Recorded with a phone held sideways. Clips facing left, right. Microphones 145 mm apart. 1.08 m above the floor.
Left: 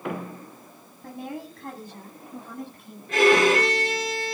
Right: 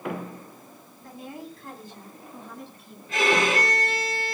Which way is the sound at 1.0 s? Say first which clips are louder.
Left 4 dB; 65° left (ahead or behind).